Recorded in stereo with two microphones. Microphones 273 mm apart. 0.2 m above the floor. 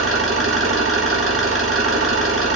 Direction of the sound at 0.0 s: 55° right (ahead or behind).